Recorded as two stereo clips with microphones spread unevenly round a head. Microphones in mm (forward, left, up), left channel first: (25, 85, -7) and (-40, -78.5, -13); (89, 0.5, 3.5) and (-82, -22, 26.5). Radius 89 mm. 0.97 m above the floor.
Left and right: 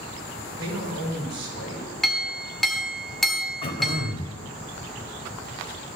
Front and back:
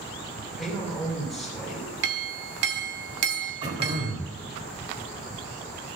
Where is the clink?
155° left, 1.9 m.